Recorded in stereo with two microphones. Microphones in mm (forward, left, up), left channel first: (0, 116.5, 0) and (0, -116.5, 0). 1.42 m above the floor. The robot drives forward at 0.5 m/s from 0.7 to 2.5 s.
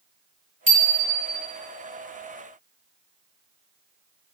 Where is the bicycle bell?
55° right (ahead or behind), 2.5 m; by 1.4 s 65° right (ahead or behind), 2.5 m.